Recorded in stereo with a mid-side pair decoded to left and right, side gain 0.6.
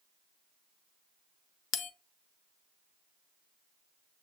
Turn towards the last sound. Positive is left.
turn(degrees=65)